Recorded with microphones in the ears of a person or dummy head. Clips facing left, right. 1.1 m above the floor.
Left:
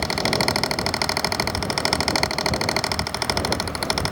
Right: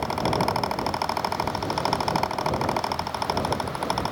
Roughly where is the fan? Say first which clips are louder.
Left 1 dB; left.